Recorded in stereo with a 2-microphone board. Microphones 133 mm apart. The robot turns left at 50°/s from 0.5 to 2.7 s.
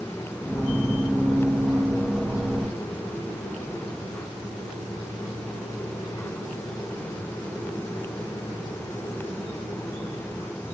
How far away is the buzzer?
No buzzer in this recording.